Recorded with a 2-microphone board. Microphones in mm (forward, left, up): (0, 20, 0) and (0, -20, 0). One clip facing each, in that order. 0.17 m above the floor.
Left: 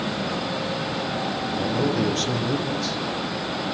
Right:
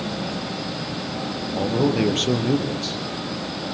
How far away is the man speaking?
About 4 m.